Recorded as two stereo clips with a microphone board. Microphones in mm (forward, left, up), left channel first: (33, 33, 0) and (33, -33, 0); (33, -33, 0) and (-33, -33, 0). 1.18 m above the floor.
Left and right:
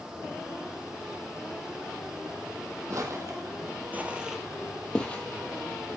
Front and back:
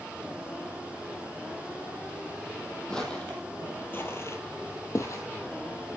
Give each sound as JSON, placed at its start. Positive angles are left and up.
{"t": 2.9, "sound": "footsteps", "azimuth_deg": -75, "distance_m": 2.0}